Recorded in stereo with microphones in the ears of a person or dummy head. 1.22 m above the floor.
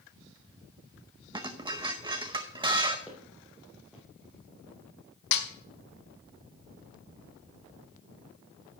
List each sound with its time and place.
1.3 s dishes clattering: 20° right (ahead or behind), 0.7 m
3.1 s footsteps: centre (ahead or behind), 1.7 m
5.3 s a snare drum: 55° left (ahead or behind), 1.1 m